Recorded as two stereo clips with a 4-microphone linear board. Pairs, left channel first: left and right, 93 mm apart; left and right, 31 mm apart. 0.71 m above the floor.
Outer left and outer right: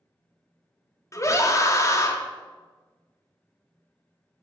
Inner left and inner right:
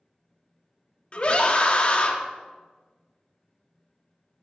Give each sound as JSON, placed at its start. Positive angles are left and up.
{"t": 1.1, "sound": "a scream", "side_deg": 35, "distance_m": 0.9}